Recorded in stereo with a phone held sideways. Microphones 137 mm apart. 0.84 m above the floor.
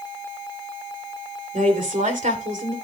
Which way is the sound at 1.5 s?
70° right (ahead or behind).